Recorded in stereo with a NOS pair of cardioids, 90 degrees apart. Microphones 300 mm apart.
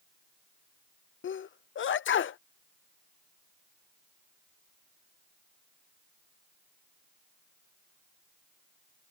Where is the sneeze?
40° left.